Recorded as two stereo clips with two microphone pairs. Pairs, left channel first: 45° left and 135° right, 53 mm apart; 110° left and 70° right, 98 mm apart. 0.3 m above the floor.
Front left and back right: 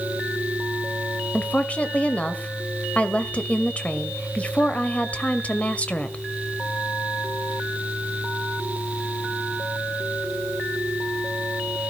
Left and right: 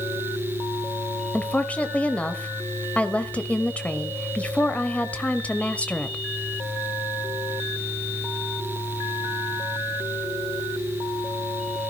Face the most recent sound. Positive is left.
turn(degrees=55)